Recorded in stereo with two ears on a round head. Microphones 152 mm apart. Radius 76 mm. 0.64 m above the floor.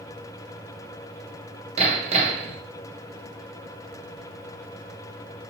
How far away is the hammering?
About 1.9 m.